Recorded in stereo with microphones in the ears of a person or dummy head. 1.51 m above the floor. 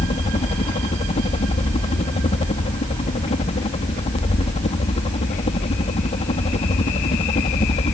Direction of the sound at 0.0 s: 30° left (ahead or behind).